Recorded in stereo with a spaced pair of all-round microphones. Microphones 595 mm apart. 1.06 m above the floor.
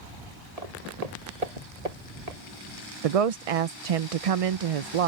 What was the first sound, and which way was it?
Footsteps, 75° right (ahead or behind).